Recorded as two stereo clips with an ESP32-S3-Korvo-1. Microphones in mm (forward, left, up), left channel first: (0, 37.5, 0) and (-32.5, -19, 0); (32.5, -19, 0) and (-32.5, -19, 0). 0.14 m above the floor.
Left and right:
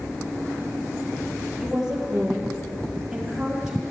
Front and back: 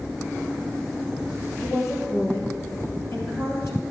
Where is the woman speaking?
40° right, 4 m.